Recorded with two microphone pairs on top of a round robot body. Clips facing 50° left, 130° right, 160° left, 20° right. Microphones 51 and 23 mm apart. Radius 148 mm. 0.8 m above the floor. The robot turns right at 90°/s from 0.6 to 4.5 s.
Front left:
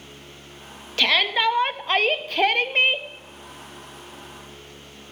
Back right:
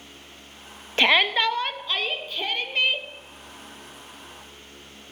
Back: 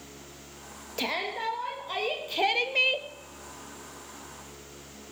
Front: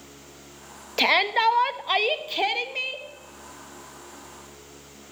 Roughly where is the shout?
Ahead right.